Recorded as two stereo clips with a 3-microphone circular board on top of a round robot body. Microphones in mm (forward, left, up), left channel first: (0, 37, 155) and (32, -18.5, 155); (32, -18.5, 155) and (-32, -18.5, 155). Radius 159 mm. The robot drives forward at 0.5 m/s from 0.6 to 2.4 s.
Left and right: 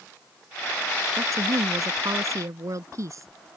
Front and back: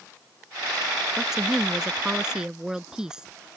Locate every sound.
1.2 s a woman speaking: 100° right